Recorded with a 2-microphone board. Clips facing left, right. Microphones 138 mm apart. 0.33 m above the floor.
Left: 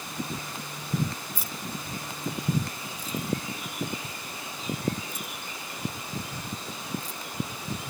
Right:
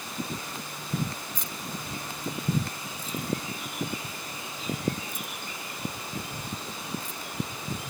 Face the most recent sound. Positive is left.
turn(degrees=-65)  # may be behind; listen again after turning